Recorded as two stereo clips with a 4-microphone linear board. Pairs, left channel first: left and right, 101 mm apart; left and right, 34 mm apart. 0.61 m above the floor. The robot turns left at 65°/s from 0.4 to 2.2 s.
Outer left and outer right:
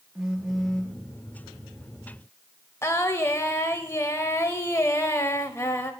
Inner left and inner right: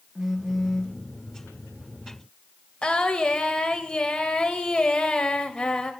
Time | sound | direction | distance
0.1 | a phone buzzing | 5° right (ahead or behind) | 0.7 m
2.8 | singing | 25° left (ahead or behind) | 0.5 m